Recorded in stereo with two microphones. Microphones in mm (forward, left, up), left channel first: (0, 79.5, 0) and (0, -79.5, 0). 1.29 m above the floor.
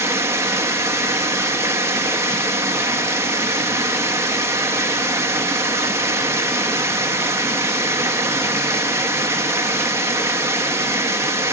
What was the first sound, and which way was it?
Running water, 15° right (ahead or behind).